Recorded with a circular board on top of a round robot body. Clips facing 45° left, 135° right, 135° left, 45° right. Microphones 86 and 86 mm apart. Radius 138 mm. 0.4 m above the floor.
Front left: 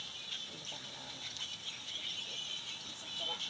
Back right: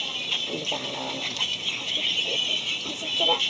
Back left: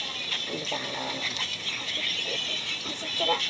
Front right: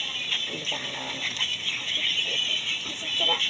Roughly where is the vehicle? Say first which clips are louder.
Back right 16 dB, even; behind right.